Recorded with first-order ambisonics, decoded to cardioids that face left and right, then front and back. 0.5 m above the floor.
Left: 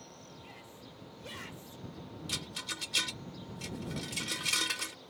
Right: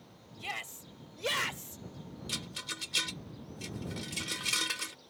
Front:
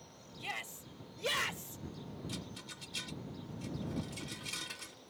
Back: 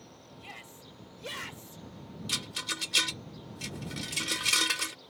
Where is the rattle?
Straight behind.